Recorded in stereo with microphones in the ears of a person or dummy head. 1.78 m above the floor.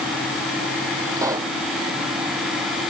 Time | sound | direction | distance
1.2 | a pop | 20° right (ahead or behind) | ?